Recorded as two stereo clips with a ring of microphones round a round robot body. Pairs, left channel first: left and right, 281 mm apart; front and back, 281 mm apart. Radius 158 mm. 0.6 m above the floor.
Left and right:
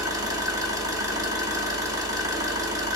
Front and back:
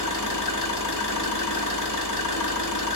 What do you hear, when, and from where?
0.0 s an engine running: 10° right, 1.0 m